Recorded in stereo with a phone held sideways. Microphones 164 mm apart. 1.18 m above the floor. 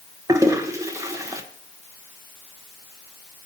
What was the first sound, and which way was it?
A toilet flushing, 20° right (ahead or behind).